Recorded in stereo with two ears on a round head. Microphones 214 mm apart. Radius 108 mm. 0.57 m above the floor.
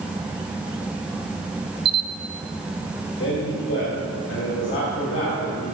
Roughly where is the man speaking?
Left.